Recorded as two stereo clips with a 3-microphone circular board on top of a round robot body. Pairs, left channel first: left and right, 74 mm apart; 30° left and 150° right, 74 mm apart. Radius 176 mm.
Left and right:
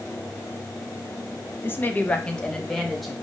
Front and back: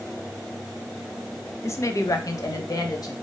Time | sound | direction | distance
1.6 | a woman speaking | 55° left | 0.7 m